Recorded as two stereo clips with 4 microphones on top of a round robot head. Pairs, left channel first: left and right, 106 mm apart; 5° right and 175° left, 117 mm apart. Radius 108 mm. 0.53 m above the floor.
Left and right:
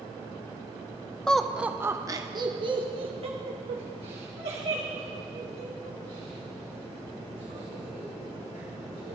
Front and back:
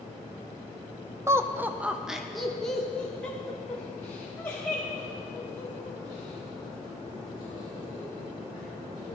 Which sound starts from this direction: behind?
Laughter, at 1.3 s.